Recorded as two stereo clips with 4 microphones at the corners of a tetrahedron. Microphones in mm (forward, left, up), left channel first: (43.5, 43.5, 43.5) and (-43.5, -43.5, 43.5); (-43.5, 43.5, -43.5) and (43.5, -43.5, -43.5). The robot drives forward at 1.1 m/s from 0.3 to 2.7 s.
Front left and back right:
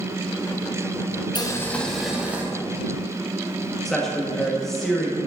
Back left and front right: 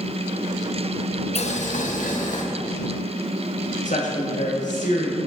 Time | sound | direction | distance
1.4 | boiling | 100° left | 0.8 m
3.9 | a woman speaking | 130° left | 1.4 m